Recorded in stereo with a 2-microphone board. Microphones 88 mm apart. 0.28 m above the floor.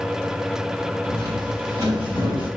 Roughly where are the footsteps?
Right.